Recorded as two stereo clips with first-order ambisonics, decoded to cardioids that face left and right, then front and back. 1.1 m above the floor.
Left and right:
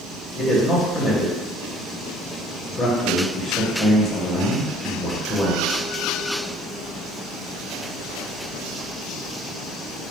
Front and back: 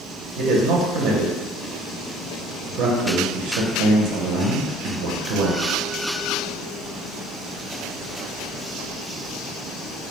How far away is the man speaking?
About 0.6 m.